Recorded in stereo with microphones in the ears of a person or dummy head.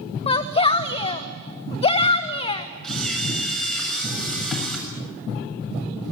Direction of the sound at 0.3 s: 35° left (ahead or behind).